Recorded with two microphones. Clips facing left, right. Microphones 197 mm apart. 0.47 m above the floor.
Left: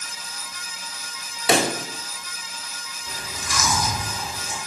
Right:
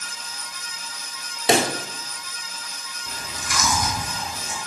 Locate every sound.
1.5 s a pop: 25° right (ahead or behind), 0.8 m
3.1 s chewing: 65° right (ahead or behind), 3.5 m